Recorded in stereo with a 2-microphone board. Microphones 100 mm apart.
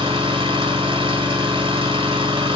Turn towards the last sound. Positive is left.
turn(degrees=-65)  # may be behind; listen again after turning